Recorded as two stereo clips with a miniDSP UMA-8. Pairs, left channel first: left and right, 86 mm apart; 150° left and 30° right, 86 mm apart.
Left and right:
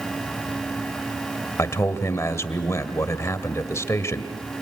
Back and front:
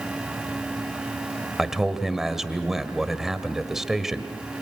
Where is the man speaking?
55° left, 1.7 m.